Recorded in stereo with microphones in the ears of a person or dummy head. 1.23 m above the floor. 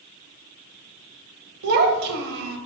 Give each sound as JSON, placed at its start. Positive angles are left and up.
{"t": 1.6, "sound": "a child speaking", "side_deg": -60, "distance_m": 0.6}